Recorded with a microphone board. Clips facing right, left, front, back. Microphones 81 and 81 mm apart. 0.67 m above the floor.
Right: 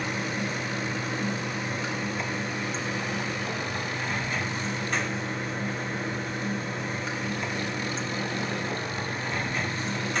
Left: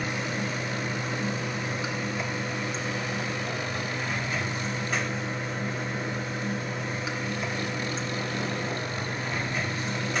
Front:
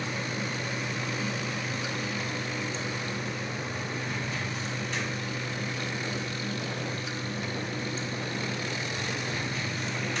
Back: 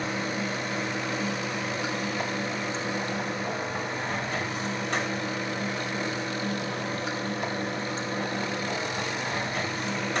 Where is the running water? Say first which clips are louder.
Even, back 3 dB; 175° left, 3.5 m.